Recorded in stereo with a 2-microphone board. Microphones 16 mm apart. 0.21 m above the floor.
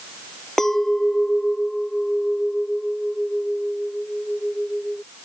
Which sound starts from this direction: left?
A clink, at 0.6 s.